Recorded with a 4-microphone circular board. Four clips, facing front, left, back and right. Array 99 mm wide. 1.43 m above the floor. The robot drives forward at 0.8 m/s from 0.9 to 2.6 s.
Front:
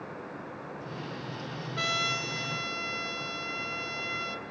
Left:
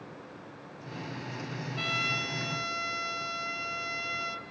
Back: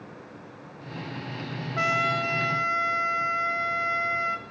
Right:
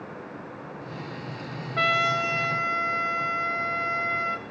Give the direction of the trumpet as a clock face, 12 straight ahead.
4 o'clock.